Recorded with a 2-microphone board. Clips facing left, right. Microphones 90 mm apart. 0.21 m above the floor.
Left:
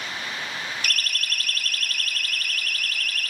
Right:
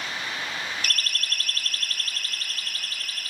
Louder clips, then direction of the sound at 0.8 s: Left 1 dB; 45° right (ahead or behind).